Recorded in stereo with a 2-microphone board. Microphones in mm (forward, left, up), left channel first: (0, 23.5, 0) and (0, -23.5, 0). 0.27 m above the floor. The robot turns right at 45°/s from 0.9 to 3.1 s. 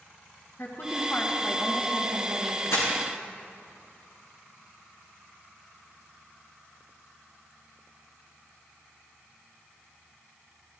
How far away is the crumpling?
About 3 m.